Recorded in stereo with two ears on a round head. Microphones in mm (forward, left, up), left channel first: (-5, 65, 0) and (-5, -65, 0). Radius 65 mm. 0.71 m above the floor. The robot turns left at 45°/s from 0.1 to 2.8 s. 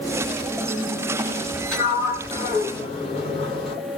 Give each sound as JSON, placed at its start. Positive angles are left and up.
{"t": 1.7, "sound": "a sliding door", "azimuth_deg": 175, "distance_m": 1.5}